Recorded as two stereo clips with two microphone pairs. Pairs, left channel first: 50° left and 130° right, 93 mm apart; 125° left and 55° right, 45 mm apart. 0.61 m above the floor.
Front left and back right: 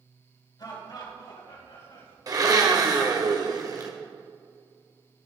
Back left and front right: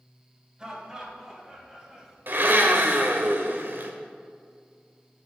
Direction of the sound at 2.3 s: 85° right.